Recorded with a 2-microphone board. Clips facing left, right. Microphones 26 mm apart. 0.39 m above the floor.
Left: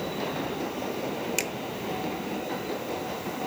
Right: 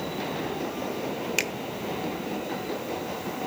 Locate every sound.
1.4 s a finger snap: 20° right (ahead or behind), 0.8 m